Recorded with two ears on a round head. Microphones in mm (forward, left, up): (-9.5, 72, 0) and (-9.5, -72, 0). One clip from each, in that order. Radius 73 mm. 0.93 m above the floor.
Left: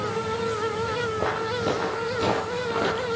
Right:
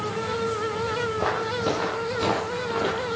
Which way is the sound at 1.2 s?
20° right (ahead or behind).